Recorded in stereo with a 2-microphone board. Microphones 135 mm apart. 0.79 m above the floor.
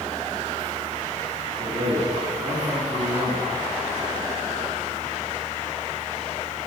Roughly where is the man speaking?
Right.